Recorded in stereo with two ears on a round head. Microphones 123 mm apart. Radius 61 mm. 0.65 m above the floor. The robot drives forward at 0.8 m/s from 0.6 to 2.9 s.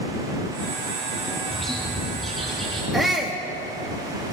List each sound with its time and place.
1.5 s a bird: centre (ahead or behind), 4 m
2.9 s a shout: centre (ahead or behind), 0.9 m